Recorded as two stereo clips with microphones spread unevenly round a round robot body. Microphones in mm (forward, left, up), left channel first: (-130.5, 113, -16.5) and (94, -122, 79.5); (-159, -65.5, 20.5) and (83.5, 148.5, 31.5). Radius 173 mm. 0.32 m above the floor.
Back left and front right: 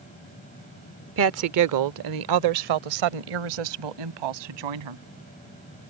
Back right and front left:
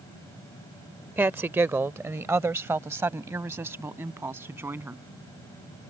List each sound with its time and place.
1.2 s a woman speaking: 35° right; by 5.0 s 40° right